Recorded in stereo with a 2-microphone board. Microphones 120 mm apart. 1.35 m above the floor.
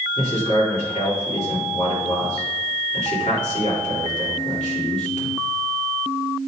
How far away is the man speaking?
About 3.5 m.